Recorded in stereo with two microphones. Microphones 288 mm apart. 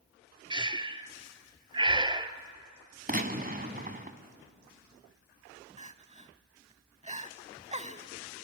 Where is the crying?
25° right (ahead or behind), 0.6 m.